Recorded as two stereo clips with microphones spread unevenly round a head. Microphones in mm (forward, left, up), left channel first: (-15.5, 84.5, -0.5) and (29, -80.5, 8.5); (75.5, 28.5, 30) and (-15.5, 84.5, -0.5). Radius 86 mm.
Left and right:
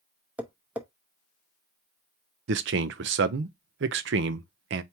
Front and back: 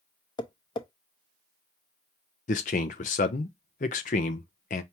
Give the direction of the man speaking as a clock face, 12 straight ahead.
2 o'clock.